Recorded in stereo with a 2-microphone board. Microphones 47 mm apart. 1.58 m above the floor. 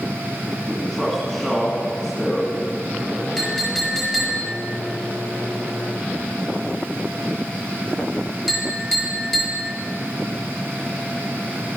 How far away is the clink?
About 5 m.